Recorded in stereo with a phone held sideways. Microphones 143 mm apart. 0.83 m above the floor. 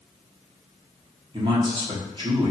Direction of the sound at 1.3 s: 40° right (ahead or behind).